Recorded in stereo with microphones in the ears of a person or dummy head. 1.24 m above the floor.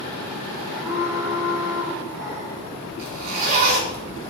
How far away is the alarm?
About 5.5 m.